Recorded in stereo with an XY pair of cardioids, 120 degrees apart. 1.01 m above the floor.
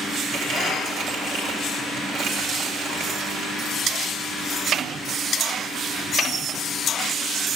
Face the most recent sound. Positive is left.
turn(degrees=-60)